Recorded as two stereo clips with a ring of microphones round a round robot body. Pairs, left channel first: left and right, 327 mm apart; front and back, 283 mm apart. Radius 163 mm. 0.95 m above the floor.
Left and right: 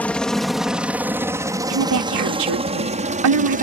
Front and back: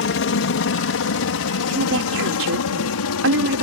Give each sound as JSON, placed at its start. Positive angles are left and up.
{"t": 0.0, "sound": "a helicopter", "azimuth_deg": 5}
{"t": 1.7, "sound": "a woman speaking", "azimuth_deg": -125}